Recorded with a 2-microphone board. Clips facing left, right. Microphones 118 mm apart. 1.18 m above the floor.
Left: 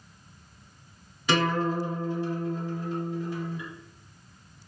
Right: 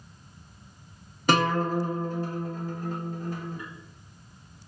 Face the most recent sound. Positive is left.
turn(degrees=-45)  # may be behind; listen again after turning